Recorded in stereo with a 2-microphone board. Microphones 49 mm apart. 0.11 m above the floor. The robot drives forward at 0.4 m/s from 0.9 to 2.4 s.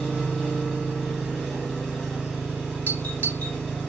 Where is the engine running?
10° left (ahead or behind), 3.5 m.